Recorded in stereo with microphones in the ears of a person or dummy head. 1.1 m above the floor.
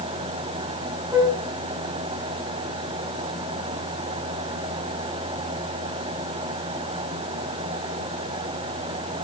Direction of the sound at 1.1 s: 15° right (ahead or behind).